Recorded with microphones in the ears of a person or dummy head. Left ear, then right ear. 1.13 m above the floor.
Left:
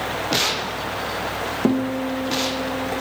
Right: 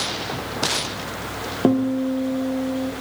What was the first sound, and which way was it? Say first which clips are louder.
A guitar: right 4 dB; 5° right (ahead or behind).